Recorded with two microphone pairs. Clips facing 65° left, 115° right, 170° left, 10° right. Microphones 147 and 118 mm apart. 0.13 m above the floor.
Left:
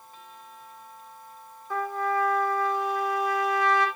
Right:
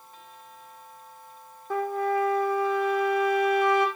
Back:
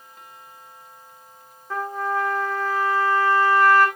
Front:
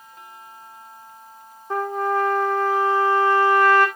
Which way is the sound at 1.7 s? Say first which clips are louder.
Right 2 dB, front 3 dB; 85° right.